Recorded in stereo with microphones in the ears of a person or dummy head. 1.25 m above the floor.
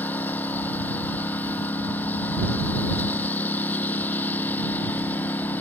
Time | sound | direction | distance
0.0 | a lawn mower | 10° left (ahead or behind) | ?